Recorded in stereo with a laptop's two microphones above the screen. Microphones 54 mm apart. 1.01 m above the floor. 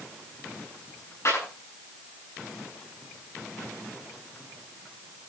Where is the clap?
60° left (ahead or behind), 9.5 m.